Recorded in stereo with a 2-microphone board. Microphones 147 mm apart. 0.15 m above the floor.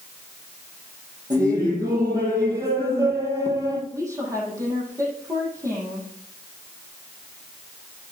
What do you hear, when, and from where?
1.3 s laughter: 20° right (ahead or behind), 6.5 m; by 3.8 s 25° right (ahead or behind), 4 m
3.9 s a woman speaking: 20° right (ahead or behind), 7 m